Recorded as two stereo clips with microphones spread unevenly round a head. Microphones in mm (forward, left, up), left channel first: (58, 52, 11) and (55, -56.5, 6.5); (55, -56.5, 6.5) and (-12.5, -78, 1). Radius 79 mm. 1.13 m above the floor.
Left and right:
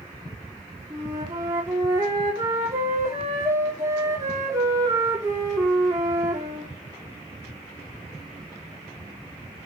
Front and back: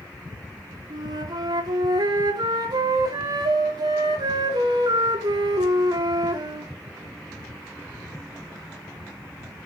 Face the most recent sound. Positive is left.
turn(degrees=-165)